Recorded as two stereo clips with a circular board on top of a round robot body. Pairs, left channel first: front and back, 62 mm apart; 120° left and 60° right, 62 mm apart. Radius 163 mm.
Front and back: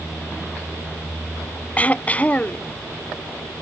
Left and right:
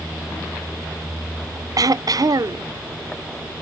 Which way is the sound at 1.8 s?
65° right.